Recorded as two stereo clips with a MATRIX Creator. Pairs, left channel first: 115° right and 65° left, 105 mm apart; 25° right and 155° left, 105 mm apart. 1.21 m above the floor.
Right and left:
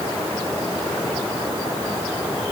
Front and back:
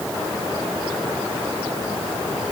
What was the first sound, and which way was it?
Only background noise.